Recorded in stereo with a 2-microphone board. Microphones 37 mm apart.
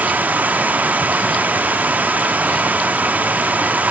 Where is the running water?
55° right (ahead or behind), 1.0 m.